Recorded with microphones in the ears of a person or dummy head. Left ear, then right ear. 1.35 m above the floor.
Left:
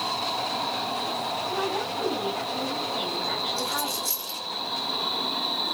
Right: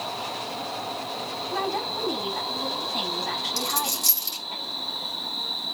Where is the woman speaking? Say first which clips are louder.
Even; 85° right, 8 m.